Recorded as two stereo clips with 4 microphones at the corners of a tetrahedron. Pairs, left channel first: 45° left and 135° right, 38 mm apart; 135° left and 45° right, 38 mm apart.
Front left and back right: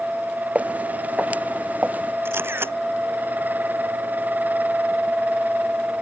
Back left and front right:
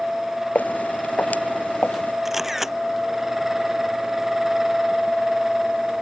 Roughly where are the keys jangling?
No keys jangling in this recording.